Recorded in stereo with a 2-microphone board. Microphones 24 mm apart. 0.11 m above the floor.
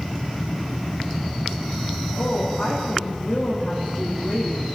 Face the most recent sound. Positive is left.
turn(degrees=60)  # may be behind; listen again after turning